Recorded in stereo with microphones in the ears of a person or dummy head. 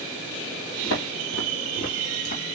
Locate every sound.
0.8 s footsteps: 60° left (ahead or behind), 3 m; by 2.4 s 65° left (ahead or behind), 4 m